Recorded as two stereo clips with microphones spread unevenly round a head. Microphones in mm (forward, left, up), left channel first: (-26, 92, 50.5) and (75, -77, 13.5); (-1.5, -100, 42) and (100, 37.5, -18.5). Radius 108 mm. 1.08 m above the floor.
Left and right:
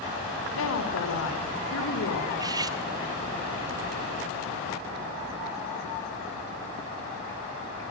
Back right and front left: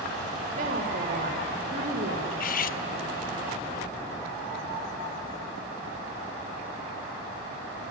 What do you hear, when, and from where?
0.6 s a woman speaking: 105° left, 4.5 m
2.3 s cutlery clinking: 135° right, 0.8 m